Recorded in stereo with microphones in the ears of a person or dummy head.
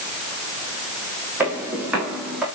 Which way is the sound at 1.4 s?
10° right (ahead or behind).